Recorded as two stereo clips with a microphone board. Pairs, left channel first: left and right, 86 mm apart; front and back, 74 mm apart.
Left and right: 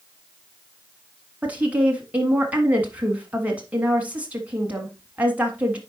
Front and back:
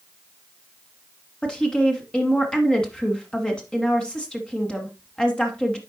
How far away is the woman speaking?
About 1.2 m.